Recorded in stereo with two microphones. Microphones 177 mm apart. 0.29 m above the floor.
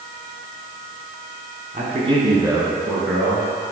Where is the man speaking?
45° right (ahead or behind), 2 m; by 3.6 s centre (ahead or behind), 3.5 m.